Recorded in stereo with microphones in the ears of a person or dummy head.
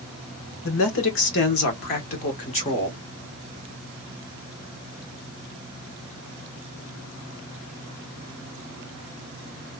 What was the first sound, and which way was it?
A man speaking, 70° left (ahead or behind).